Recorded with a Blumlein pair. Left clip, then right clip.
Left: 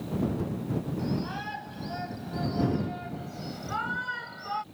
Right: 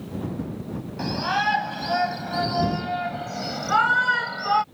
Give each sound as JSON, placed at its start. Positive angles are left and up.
{"t": 1.0, "sound": "a shout", "azimuth_deg": -55}